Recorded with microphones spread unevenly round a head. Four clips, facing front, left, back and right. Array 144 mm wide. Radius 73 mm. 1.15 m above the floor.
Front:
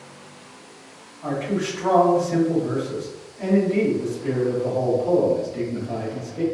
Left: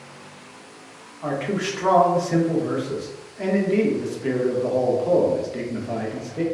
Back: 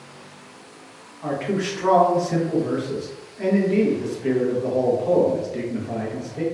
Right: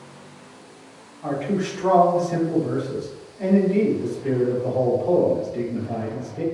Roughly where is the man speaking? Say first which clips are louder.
Right 1 dB, even; left.